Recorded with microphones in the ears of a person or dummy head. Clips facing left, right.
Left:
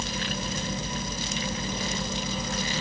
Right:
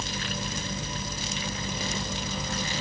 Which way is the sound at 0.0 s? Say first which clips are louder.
Left 2 dB; 10° left (ahead or behind).